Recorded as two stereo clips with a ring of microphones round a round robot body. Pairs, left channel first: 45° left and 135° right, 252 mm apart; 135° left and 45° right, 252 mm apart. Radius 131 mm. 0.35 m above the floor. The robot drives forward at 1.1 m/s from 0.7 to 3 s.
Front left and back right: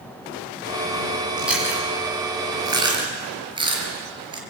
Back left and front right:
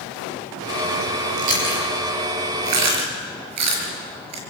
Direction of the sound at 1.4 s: 50° right.